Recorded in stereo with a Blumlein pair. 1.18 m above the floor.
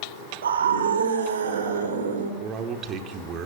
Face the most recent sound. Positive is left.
turn(degrees=-30)